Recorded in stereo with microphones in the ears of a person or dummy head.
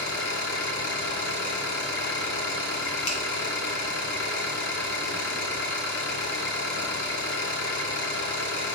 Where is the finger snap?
70° left (ahead or behind), 1.1 m.